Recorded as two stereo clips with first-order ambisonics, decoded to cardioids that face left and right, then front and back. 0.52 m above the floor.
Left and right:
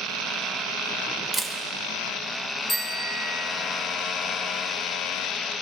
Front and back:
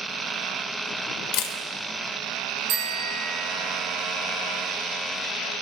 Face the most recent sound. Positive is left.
turn(degrees=160)